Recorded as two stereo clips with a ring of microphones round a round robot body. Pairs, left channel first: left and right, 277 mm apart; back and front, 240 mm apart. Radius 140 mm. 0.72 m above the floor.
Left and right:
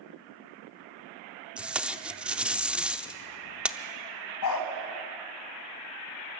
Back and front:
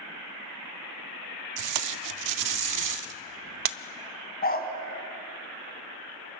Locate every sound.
1.6 s tape being pulled: 5° right, 0.7 m
4.4 s a dog barking: 125° left, 2.5 m